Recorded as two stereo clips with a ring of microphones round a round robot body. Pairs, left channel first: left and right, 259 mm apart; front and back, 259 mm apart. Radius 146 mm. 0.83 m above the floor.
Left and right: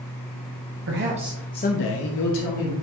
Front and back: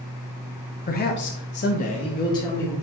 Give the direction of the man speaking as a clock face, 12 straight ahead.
2 o'clock.